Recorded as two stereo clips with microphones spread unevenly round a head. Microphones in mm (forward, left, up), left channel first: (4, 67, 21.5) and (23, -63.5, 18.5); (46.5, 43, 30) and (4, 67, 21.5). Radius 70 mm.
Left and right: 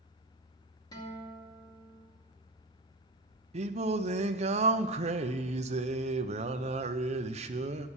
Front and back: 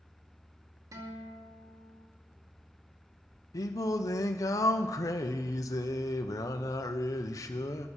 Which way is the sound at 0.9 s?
160° left.